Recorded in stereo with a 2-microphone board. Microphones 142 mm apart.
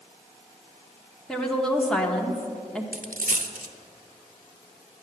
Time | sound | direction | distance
1.3 | a woman speaking | 5° left (ahead or behind) | 1.1 m
2.9 | a dropped coin | 75° right (ahead or behind) | 0.8 m